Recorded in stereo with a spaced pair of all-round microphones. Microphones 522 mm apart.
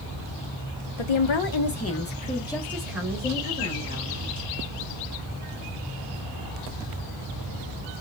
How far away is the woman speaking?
About 0.7 m.